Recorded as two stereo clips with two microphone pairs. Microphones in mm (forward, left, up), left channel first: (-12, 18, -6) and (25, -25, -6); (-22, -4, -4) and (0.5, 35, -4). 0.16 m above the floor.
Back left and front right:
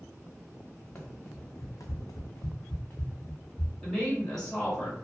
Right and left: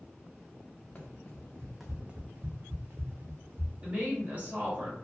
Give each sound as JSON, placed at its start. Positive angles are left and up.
{"t": 0.9, "sound": "running footsteps", "azimuth_deg": -175, "distance_m": 0.8}
{"t": 3.8, "sound": "a woman speaking", "azimuth_deg": 55, "distance_m": 1.9}